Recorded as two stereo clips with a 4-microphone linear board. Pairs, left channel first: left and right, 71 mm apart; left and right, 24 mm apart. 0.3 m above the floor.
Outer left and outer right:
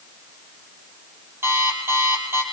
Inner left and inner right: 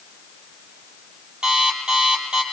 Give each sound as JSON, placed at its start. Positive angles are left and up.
{"t": 1.4, "sound": "an alarm clock", "side_deg": -35, "distance_m": 5.0}